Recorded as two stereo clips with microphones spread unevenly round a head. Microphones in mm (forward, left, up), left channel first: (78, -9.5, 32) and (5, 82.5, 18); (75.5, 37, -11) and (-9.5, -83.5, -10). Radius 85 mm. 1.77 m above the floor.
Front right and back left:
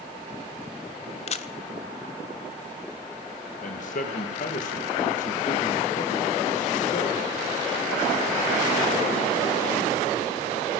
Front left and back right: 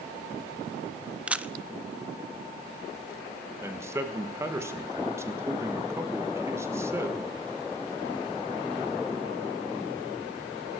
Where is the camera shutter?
45° right, 0.6 m.